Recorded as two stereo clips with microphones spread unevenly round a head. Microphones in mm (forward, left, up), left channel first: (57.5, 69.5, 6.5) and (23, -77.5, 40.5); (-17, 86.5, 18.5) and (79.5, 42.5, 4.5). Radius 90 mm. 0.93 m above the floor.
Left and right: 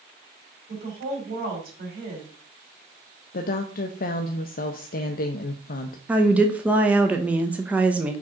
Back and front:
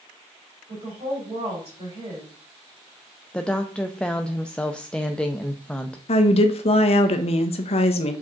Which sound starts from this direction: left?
A woman speaking, at 3.3 s.